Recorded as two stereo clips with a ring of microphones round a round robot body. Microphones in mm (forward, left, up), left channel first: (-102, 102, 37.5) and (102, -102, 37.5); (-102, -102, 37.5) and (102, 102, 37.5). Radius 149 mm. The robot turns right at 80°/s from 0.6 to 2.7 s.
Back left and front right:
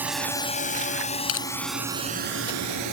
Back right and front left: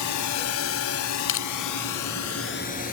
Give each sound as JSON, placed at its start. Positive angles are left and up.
{"t": 0.0, "sound": "a drone", "azimuth_deg": -130}
{"t": 1.3, "sound": "crushing", "azimuth_deg": 175}